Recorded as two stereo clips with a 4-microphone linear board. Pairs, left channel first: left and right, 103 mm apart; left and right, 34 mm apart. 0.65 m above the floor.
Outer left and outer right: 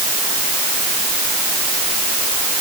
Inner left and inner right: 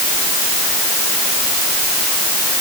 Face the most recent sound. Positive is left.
No sound to turn to.